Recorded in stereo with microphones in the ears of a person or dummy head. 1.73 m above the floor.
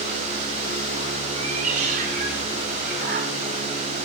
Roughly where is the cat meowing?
Right.